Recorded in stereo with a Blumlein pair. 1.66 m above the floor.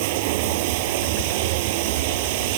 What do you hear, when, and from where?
0.0 s running water: 50° right